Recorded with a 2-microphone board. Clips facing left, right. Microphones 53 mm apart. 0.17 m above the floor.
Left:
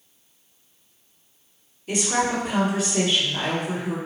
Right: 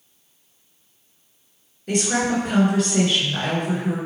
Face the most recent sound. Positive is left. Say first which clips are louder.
# right 2 dB
turn(degrees=-60)  # may be behind; listen again after turning